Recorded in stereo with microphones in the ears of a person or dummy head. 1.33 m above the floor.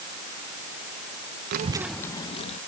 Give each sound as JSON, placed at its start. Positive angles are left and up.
{"t": 1.5, "sound": "a child speaking", "side_deg": -50}